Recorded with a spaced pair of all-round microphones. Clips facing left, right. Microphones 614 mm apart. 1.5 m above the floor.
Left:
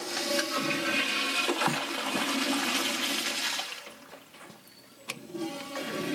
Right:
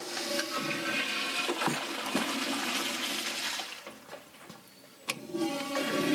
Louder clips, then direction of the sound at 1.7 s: Left 1 dB; 10° left (ahead or behind).